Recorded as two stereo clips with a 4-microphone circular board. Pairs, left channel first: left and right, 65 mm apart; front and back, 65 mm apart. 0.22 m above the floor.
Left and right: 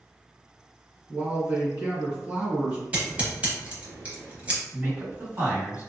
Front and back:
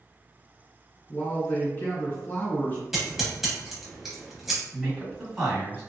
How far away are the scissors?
About 0.9 m.